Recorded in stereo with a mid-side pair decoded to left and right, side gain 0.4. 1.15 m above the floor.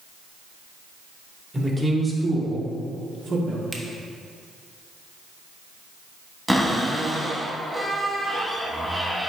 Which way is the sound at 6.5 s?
Straight ahead.